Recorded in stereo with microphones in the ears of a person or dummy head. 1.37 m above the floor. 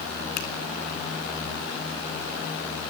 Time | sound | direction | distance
0.4 | a finger snap | 60° left (ahead or behind) | 2.5 m